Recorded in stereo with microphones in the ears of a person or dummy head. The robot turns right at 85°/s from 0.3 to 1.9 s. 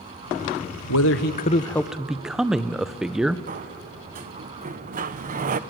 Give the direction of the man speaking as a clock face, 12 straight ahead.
9 o'clock.